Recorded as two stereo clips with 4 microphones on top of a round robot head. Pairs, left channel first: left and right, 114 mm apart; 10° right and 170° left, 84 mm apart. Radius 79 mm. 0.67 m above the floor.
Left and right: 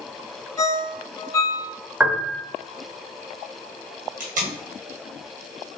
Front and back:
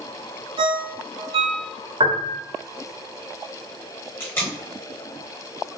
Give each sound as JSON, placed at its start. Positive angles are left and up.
{"t": 0.6, "sound": "a ringtone", "azimuth_deg": 155, "distance_m": 0.6}
{"t": 2.0, "sound": "a piano", "azimuth_deg": -170, "distance_m": 1.0}
{"t": 4.2, "sound": "tape being pulled", "azimuth_deg": -80, "distance_m": 1.6}